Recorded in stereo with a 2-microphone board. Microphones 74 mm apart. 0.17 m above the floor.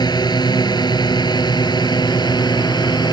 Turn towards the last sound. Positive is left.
turn(degrees=65)  # may be behind; listen again after turning